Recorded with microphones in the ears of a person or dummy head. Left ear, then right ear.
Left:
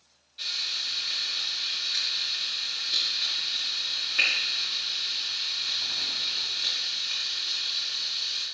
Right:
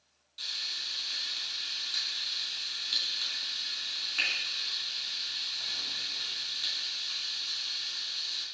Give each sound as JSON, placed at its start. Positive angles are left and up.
{"t": 0.4, "sound": "frying", "side_deg": -25, "distance_m": 3.0}